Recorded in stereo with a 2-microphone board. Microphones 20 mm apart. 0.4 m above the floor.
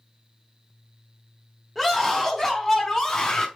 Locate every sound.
1.8 s a scream: 5° left (ahead or behind), 1.6 m; by 3.5 s 20° left (ahead or behind), 3 m